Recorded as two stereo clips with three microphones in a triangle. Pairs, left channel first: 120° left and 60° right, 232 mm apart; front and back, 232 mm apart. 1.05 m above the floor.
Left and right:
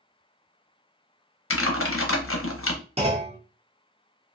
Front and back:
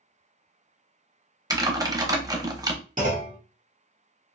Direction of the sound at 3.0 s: 125° right.